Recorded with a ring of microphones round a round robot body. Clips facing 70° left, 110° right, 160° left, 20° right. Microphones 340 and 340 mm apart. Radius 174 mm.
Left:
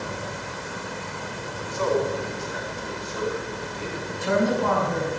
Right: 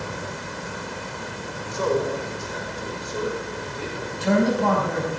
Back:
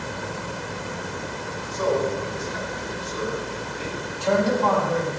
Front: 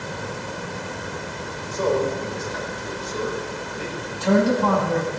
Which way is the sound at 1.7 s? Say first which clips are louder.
Right 1 dB, front 2 dB; 65° right.